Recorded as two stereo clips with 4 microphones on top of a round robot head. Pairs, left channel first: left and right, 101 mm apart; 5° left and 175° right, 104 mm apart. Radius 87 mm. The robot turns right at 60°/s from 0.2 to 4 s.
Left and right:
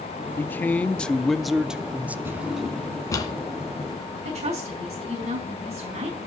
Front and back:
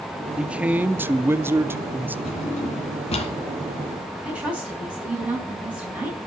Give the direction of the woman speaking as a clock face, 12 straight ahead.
3 o'clock.